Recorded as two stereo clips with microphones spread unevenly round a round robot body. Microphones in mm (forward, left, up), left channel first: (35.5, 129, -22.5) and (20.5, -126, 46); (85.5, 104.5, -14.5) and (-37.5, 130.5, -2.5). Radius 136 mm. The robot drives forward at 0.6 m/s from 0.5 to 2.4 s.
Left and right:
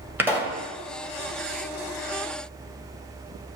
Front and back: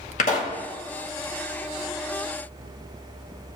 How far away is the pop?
About 2 m.